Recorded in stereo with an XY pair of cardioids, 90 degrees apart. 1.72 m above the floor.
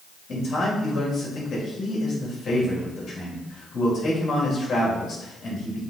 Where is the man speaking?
55° left, 3.5 m.